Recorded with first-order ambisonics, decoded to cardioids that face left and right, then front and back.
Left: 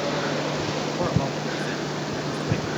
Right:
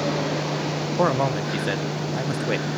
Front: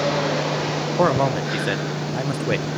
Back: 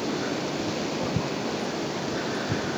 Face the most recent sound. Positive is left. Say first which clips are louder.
# right 5 dB, front 10 dB
turn(degrees=-25)